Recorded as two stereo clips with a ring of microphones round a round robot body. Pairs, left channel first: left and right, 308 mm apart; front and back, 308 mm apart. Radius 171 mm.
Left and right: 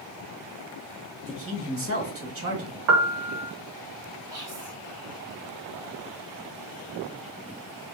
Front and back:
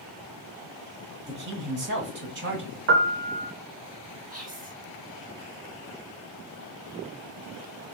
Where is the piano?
130° right, 0.6 m.